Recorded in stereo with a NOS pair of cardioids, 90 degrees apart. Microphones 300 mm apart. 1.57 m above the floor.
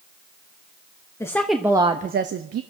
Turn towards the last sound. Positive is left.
turn(degrees=-55)